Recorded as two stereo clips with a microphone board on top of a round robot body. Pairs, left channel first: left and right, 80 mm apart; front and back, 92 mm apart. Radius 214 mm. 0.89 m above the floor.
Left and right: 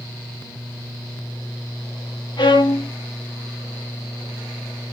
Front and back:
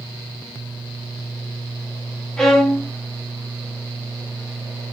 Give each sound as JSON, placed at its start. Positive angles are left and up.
{"t": 2.4, "sound": "a violin", "azimuth_deg": 85, "distance_m": 1.1}